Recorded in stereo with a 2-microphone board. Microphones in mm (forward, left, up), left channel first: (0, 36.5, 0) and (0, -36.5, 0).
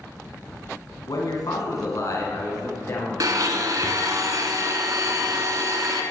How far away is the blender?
About 0.9 m.